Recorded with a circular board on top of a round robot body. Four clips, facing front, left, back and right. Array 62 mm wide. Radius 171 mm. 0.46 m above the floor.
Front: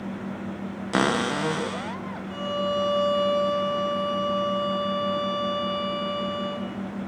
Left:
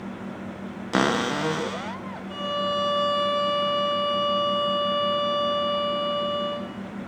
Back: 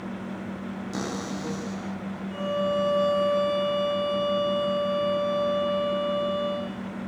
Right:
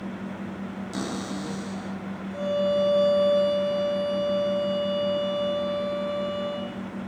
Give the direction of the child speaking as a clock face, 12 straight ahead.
I don't hear a child speaking.